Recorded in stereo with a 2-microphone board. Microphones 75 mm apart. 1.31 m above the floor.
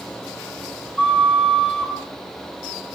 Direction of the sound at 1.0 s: 15° left (ahead or behind).